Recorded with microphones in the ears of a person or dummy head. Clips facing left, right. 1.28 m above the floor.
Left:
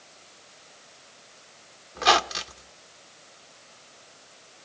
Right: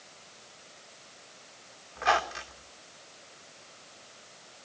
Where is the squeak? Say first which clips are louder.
Left 5 dB; 60° left (ahead or behind), 0.8 m.